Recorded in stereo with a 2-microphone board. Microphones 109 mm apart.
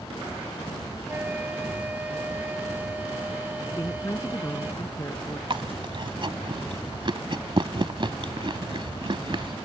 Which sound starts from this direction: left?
A woman speaking, at 3.7 s.